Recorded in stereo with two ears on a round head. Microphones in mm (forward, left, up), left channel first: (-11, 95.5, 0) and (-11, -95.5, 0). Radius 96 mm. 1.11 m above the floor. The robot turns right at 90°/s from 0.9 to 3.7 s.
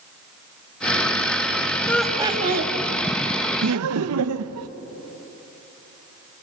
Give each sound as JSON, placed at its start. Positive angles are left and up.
{"t": 1.9, "sound": "laughter", "azimuth_deg": 165, "distance_m": 1.7}
{"t": 3.6, "sound": "laughter", "side_deg": -75, "distance_m": 0.7}